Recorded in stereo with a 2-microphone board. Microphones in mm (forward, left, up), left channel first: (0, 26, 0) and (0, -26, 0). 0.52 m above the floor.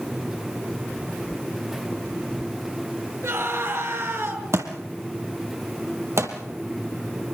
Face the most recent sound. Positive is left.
turn(degrees=-65)  # may be behind; listen again after turning